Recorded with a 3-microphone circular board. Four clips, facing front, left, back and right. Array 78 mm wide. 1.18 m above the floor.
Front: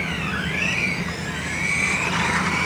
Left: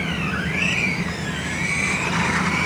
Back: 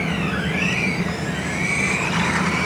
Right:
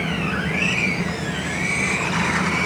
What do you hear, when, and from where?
Only background noise.